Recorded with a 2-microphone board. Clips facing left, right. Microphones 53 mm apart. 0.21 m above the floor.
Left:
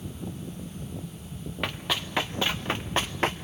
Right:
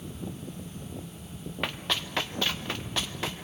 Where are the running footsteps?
Centre (ahead or behind), 1.6 m; by 3.3 s 45° left (ahead or behind), 1.3 m.